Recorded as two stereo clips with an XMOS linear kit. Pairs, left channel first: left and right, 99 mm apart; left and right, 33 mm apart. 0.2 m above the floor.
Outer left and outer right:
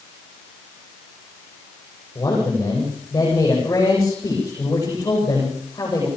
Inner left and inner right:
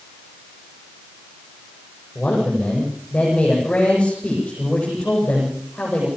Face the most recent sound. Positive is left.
turn(degrees=30)  # may be behind; listen again after turning